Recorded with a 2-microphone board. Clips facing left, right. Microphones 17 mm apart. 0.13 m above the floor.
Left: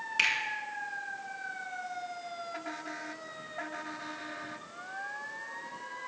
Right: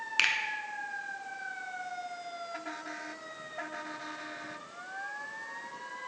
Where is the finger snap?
30° right (ahead or behind), 1.0 m.